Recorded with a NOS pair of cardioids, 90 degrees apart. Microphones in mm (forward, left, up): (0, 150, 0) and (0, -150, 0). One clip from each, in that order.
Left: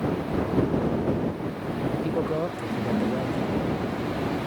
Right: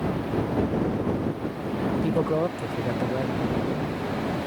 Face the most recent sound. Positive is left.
turn(degrees=-10)